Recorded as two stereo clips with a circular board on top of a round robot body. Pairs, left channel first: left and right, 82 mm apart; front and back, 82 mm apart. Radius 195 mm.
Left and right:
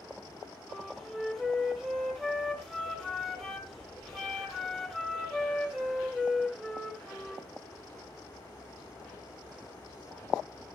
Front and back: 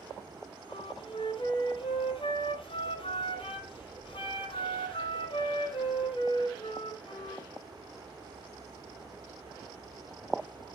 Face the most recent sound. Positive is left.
turn(degrees=0)